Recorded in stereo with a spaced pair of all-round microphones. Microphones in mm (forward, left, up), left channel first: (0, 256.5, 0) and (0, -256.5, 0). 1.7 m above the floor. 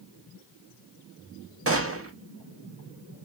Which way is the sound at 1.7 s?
25° right (ahead or behind).